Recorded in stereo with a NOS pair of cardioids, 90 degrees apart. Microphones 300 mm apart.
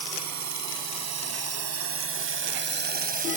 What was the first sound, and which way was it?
A drone, 70° right.